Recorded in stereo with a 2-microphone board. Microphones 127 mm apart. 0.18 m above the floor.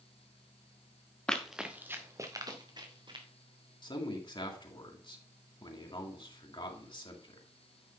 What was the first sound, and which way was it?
Running footsteps, 5° left (ahead or behind).